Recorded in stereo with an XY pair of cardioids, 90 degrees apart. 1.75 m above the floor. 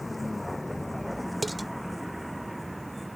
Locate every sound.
0.0 s a vehicle: 15° left; by 3.2 s 10° right
1.4 s dishes clattering: 15° right